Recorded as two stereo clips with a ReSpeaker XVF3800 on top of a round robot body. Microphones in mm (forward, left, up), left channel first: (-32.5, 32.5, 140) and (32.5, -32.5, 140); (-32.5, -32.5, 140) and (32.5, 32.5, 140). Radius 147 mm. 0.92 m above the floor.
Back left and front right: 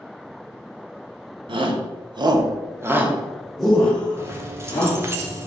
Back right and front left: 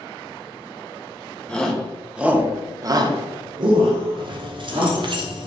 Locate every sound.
1.5 s a shout: 55° right, 1.0 m; by 5.0 s 70° left, 1.5 m
4.2 s keys jangling: 15° left, 0.7 m